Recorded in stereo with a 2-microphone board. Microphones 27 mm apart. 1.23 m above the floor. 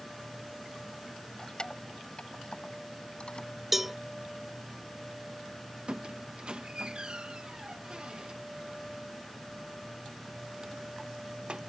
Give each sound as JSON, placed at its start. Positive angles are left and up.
{"t": 1.4, "sound": "keys jangling", "side_deg": 30}
{"t": 3.7, "sound": "a cowbell", "side_deg": -10}
{"t": 5.9, "sound": "a squeak", "side_deg": -40}